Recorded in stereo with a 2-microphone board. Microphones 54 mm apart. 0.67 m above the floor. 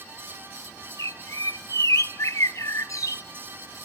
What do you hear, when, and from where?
1.0 s a bird: 80° left, 0.6 m